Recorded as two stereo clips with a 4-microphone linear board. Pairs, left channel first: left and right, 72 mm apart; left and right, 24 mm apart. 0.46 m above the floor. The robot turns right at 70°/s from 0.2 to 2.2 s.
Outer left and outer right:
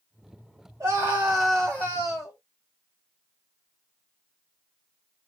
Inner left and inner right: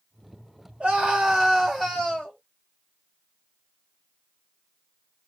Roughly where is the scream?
Ahead right.